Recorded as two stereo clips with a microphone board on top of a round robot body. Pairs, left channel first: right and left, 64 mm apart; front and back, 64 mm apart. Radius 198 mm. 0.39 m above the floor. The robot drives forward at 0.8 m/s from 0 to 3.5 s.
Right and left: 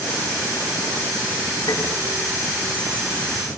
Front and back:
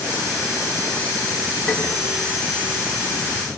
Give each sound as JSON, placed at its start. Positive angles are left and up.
{"t": 1.7, "sound": "tapping", "azimuth_deg": -85, "distance_m": 3.5}